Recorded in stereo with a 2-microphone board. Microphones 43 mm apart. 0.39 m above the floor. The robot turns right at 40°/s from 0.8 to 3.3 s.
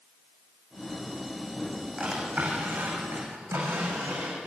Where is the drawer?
160° right, 9.5 m; by 4.4 s 110° right, 9.5 m.